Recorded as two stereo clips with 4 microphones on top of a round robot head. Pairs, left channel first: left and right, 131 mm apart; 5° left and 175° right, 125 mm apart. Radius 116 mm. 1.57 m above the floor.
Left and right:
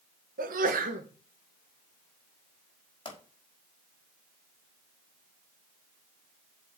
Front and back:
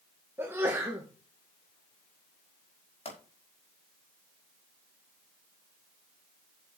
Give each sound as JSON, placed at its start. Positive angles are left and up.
{"t": 0.4, "sound": "a sneeze", "azimuth_deg": -95, "distance_m": 1.7}
{"t": 3.0, "sound": "a pop", "azimuth_deg": 40, "distance_m": 5.0}